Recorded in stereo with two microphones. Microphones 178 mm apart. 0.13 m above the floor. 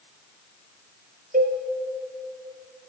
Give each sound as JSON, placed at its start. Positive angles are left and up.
{"t": 1.3, "sound": "a cowbell", "side_deg": -50, "distance_m": 2.0}